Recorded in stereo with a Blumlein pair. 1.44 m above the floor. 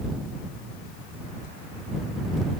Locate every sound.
Only background noise.